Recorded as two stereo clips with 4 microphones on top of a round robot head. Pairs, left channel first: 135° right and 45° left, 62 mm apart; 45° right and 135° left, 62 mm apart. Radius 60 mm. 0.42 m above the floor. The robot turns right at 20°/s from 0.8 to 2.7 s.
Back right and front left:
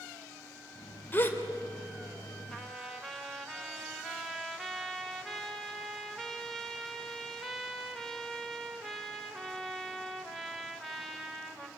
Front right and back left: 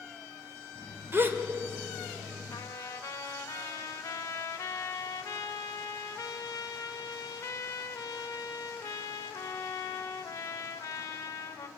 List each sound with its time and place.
1.1 s a gasp: straight behind, 2 m; by 1.4 s 175° right, 2 m
2.5 s a trumpet: 50° right, 1.9 m; by 11.7 s 45° right, 1.9 m